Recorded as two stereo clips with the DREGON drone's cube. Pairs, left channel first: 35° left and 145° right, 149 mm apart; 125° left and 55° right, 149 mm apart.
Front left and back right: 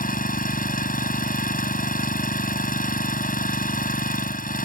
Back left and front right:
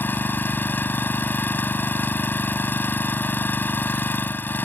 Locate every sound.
0.0 s an engine running: 45° left